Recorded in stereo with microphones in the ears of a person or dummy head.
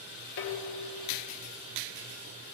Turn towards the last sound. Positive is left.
turn(degrees=70)  # may be behind; listen again after turning